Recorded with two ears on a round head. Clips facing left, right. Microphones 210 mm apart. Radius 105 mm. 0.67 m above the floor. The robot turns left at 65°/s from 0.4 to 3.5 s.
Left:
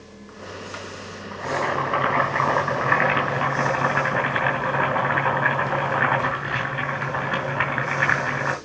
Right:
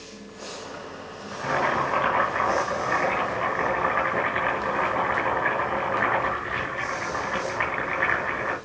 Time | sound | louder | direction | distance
1.3 | boiling | left 1 dB | 155° right | 6 m